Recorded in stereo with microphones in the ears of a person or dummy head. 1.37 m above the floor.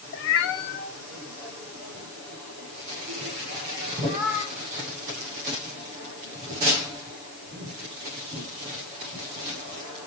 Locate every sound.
0.1 s a cat meowing: 50° left (ahead or behind), 0.9 m; by 10.0 s 35° left (ahead or behind), 6.5 m